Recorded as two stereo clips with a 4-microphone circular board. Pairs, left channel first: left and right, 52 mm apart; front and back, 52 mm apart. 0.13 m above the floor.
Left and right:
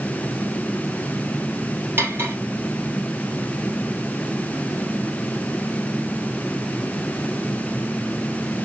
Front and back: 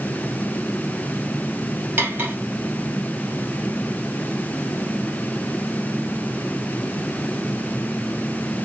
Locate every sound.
2.0 s cutlery clinking: 130° right, 1.7 m